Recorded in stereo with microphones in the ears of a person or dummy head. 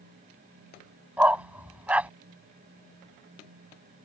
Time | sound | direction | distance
1.2 | a dog barking | 10° right (ahead or behind) | ?